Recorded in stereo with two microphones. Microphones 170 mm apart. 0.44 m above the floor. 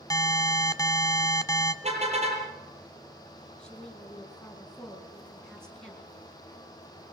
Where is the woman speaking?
5° left (ahead or behind), 8 m.